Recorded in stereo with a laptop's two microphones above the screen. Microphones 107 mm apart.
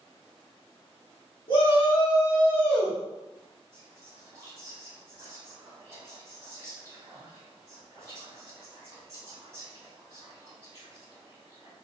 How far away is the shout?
About 1.0 m.